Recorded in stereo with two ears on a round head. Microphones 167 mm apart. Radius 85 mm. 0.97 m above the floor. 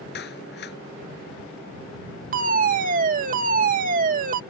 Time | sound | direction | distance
0.1 | a clap | 60° left (ahead or behind) | ?
2.3 | a fire alarm | 45° right (ahead or behind) | ?